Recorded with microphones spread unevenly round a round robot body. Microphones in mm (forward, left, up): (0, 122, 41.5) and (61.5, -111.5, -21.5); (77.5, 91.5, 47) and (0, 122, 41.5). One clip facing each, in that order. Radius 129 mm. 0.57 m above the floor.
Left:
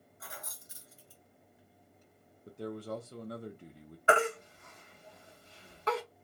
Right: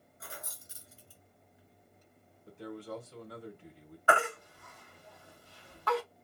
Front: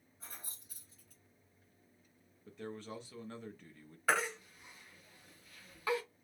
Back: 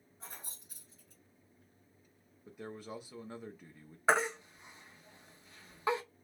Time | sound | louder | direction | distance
0.2 | keys jangling | right 1 dB, back 3 dB | 130° right | 1.5 m
2.5 | a man speaking | left 3 dB, even | 100° left | 0.6 m
4.1 | a baby crying | left 3 dB, back 4 dB | 175° left | 0.8 m